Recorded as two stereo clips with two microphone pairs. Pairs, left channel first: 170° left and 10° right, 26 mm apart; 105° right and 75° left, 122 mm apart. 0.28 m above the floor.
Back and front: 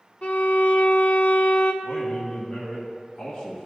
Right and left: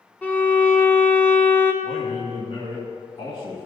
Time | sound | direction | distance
0.2 | a violin | 175° right | 1.0 m
1.8 | a man speaking | 130° right | 2 m